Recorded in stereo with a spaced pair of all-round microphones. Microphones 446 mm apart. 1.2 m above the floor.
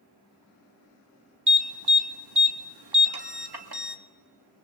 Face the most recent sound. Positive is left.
turn(degrees=-65)  # may be behind; listen again after turning